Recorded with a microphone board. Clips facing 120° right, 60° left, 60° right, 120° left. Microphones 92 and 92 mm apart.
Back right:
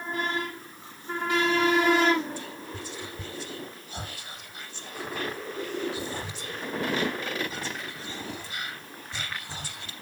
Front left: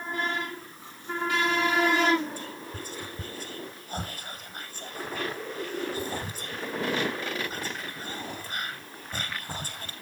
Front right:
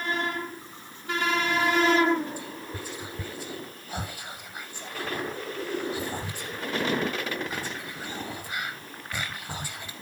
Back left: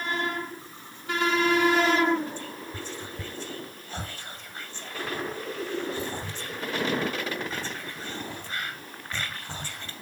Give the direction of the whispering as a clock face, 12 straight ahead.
11 o'clock.